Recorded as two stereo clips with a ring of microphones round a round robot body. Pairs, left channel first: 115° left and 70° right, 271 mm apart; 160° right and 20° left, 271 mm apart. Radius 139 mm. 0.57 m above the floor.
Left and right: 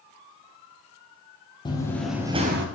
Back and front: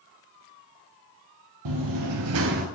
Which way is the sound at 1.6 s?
40° left.